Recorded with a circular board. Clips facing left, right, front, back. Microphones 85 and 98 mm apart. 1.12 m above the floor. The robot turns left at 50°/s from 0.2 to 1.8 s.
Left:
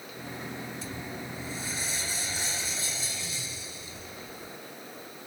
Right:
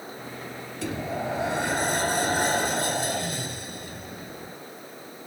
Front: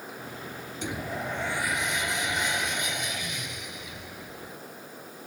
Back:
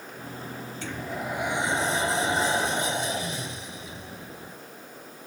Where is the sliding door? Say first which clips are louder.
Right 9 dB, front 1 dB; 75° right; by 4.6 s 120° right.